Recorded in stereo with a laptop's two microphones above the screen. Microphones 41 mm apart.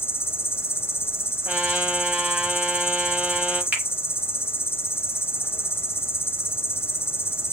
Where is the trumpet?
35° right (ahead or behind), 7 m.